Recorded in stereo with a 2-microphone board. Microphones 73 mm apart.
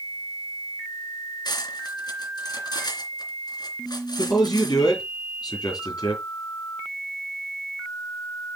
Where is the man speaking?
65° left (ahead or behind), 6.5 m.